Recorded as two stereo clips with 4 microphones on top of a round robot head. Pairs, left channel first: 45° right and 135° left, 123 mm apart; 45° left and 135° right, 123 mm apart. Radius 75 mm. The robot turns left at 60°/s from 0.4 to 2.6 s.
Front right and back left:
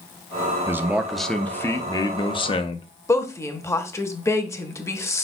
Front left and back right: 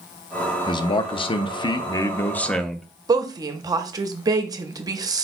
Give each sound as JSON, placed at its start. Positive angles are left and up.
{"t": 0.7, "sound": "a man speaking", "azimuth_deg": 75, "distance_m": 0.5}
{"t": 3.1, "sound": "a woman speaking", "azimuth_deg": -95, "distance_m": 0.7}